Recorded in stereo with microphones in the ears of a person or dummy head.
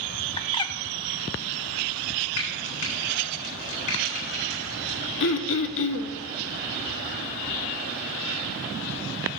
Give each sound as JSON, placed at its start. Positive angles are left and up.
{"t": 0.4, "sound": "a bird", "side_deg": 30, "distance_m": 0.6}
{"t": 2.4, "sound": "frying", "side_deg": 65, "distance_m": 3.5}
{"t": 5.2, "sound": "throat clearing", "side_deg": 70, "distance_m": 1.0}